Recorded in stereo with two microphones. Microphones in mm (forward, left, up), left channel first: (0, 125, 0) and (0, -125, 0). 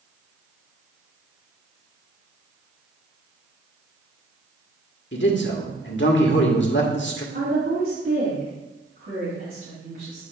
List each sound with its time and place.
5.1 s a man speaking: 55° left (ahead or behind), 1.4 m
7.3 s a woman speaking: 65° right (ahead or behind), 3 m